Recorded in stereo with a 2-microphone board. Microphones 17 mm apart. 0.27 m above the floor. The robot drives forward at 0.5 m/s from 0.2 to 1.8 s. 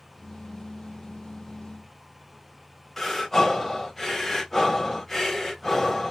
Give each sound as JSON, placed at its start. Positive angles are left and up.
{"t": 3.0, "sound": "breathing", "side_deg": 10, "distance_m": 1.2}